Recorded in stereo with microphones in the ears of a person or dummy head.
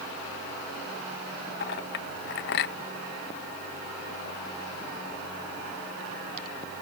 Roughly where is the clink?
Left.